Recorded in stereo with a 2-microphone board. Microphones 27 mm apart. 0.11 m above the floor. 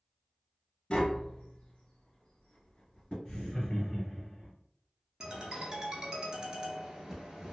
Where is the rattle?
No rattle in this recording.